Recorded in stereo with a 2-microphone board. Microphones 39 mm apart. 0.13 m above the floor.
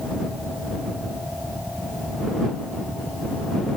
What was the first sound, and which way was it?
Only background noise.